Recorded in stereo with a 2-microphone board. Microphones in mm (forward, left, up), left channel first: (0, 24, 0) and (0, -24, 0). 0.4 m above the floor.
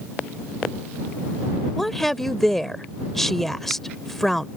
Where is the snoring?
No snoring in this recording.